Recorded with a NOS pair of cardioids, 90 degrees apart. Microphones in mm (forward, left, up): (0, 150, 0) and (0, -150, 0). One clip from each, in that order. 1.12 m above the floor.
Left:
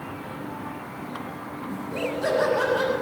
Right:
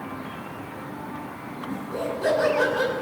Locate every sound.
1.7 s laughter: 10° left, 7 m